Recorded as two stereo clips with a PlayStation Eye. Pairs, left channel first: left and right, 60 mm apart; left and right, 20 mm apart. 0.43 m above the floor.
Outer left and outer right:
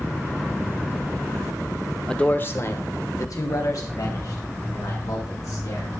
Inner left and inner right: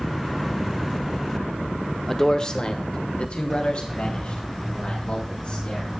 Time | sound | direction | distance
2.1 | a man speaking | 10° left (ahead or behind) | 1.0 m